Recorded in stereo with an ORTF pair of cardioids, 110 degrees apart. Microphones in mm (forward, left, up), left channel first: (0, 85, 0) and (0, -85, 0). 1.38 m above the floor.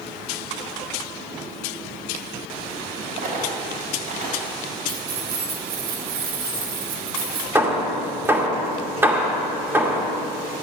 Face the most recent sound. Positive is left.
turn(degrees=-15)